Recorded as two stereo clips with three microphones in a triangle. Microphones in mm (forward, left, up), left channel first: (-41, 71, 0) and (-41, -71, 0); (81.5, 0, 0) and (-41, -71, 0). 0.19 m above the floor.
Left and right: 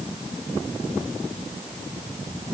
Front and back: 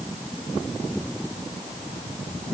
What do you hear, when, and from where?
Only background noise.